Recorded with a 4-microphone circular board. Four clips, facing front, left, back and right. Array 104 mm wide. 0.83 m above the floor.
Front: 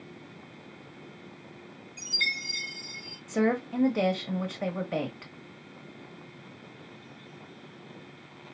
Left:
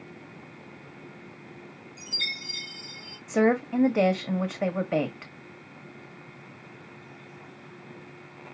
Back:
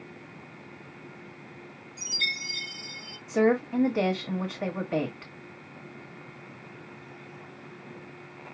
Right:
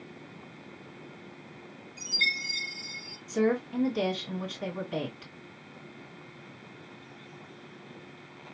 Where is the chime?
10° right, 2.5 m.